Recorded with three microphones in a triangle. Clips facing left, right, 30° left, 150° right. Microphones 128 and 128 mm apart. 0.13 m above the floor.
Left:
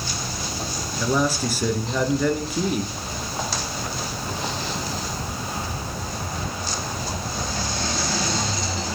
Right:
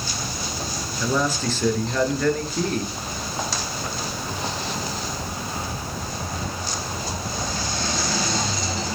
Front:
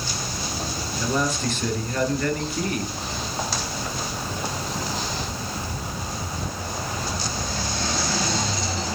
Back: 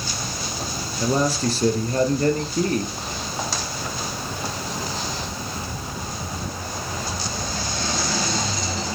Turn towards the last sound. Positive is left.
turn(degrees=170)